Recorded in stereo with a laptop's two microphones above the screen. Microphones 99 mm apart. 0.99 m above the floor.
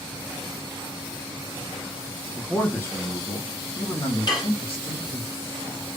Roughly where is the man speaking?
Centre.